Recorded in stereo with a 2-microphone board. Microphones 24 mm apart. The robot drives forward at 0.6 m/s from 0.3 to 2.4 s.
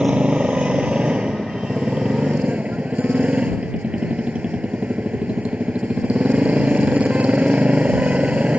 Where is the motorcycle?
50° right (ahead or behind); by 8.6 s 70° right (ahead or behind).